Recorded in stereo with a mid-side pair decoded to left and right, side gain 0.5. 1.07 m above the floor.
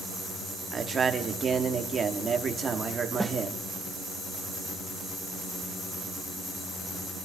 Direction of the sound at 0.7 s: 35° right.